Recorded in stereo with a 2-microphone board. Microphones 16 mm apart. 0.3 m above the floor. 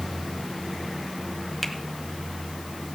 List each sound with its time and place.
1.6 s a finger snap: 5° left (ahead or behind), 1.4 m